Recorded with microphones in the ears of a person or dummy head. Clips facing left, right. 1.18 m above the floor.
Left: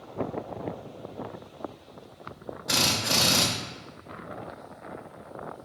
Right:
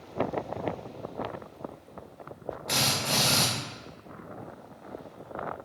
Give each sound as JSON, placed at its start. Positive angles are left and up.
{"t": 2.7, "sound": "a drill", "side_deg": 10, "distance_m": 0.6}